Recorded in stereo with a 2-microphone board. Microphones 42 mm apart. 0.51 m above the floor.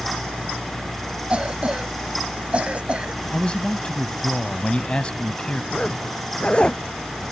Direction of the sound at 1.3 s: 25° right (ahead or behind).